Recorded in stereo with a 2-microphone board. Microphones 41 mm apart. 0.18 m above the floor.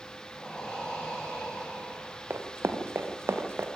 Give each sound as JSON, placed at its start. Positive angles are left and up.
{"t": 0.3, "sound": "breathing", "side_deg": 15, "distance_m": 7.5}
{"t": 2.3, "sound": "running footsteps", "side_deg": -80, "distance_m": 3.0}